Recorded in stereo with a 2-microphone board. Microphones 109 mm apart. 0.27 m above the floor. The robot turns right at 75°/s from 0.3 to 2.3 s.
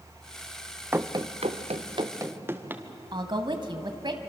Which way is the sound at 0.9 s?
20° right (ahead or behind).